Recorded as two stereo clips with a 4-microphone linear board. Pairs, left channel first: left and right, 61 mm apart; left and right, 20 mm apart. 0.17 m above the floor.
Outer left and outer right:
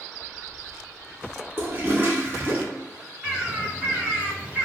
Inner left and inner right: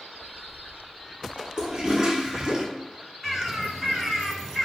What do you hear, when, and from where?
1.6 s a toilet flushing: 40° right (ahead or behind), 0.6 m
3.2 s a bird: 15° right (ahead or behind), 2.0 m